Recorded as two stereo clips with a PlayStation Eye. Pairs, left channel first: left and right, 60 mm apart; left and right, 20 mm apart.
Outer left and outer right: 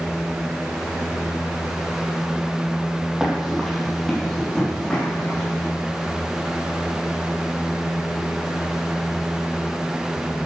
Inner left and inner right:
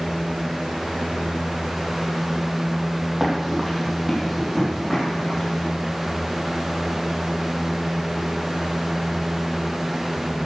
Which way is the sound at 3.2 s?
10° right (ahead or behind).